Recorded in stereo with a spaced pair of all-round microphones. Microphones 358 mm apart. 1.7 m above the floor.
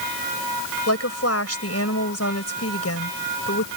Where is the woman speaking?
40° left (ahead or behind).